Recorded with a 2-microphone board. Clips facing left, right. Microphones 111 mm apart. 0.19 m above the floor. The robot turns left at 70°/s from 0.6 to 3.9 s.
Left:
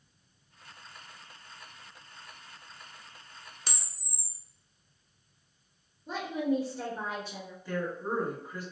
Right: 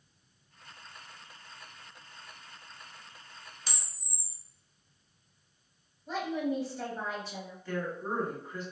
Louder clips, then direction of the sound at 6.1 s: Left 2 dB; 30° left (ahead or behind).